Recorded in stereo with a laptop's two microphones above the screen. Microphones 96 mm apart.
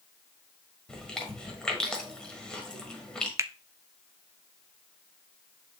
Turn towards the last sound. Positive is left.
turn(degrees=-30)  # may be behind; listen again after turning